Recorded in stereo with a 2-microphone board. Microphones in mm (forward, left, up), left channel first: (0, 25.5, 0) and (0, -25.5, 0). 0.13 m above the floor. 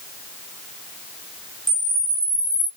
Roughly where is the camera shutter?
Centre.